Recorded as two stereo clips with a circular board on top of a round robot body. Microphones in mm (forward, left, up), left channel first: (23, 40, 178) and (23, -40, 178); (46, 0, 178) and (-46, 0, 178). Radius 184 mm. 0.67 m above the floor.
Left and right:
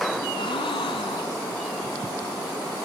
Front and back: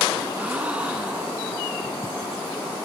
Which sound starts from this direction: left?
A gasp, at 0.3 s.